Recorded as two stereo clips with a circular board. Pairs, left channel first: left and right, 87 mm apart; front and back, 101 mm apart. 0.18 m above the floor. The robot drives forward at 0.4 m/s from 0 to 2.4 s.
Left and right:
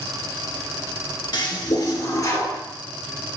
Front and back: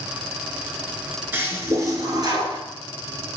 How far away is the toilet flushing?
About 0.7 m.